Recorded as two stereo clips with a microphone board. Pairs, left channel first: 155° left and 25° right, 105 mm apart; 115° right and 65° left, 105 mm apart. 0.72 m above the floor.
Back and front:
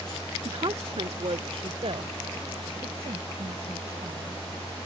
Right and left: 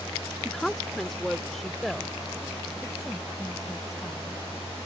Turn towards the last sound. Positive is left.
turn(degrees=-25)